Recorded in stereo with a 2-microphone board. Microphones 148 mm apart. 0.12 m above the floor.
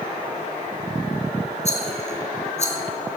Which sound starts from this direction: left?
A rattle, at 1.6 s.